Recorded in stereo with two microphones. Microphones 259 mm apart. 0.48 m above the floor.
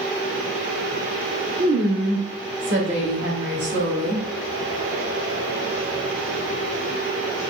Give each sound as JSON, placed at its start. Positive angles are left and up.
{"t": 1.6, "sound": "a woman speaking", "side_deg": -45, "distance_m": 1.0}